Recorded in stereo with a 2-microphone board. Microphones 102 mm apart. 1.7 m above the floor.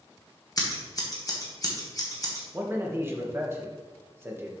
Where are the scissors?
35° left (ahead or behind), 1.7 m.